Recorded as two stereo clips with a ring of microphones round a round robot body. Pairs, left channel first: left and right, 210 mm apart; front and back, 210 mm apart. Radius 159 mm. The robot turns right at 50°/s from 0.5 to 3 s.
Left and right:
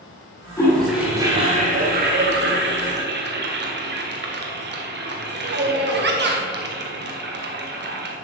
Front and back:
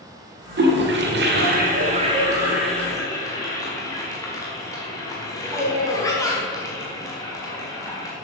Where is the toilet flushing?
165° left, 1.8 m; by 8.2 s 75° right, 1.8 m.